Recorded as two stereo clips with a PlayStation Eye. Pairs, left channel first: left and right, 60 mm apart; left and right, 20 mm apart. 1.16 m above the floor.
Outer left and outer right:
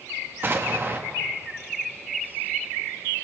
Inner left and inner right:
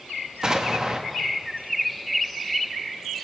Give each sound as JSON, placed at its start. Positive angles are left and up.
{"t": 0.4, "sound": "an explosion", "side_deg": -35, "distance_m": 0.7}